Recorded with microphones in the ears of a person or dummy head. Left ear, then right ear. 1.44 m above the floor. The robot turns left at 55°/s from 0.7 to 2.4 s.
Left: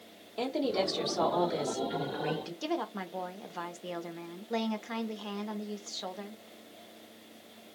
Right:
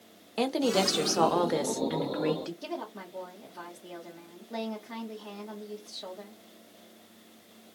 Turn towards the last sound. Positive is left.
turn(degrees=75)  # may be behind; listen again after turning